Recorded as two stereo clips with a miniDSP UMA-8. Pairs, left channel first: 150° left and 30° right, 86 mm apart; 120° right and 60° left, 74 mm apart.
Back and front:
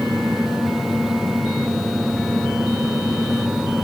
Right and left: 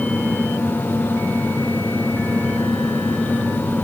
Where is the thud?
No thud in this recording.